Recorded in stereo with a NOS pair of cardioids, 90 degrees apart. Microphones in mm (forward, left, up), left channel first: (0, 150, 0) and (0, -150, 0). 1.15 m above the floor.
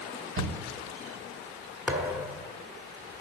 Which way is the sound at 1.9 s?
5° right.